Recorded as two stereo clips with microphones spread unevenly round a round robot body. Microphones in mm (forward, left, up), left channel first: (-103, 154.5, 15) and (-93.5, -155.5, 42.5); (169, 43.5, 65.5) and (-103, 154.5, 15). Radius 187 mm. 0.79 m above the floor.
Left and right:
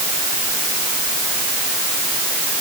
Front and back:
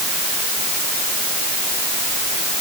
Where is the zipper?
I don't hear a zipper.